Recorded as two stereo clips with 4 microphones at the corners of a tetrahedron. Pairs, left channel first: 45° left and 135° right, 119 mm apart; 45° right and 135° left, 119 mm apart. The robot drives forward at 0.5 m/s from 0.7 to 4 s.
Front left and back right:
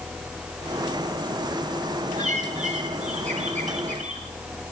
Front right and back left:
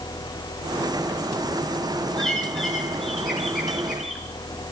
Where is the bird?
130° right, 9 m; by 4.2 s 135° right, 9.5 m.